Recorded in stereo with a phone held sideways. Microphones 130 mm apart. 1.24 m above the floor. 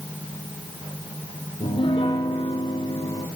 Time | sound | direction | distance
1.6 | a piano | 45° left (ahead or behind) | 5.5 m